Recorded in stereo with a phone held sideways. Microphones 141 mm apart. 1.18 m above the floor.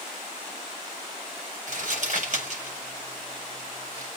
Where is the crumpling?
60° right (ahead or behind), 6.5 m.